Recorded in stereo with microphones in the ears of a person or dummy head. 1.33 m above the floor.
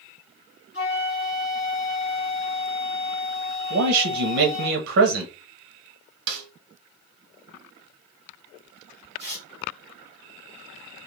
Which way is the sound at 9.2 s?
Centre (ahead or behind).